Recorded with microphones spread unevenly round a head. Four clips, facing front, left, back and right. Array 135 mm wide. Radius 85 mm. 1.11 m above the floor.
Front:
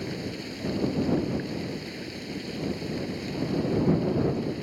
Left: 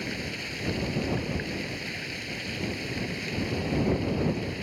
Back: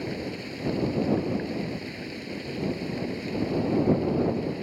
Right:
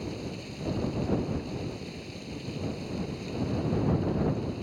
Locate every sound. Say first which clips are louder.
0.0 s running water: left 1 dB, back 1 dB; 60° left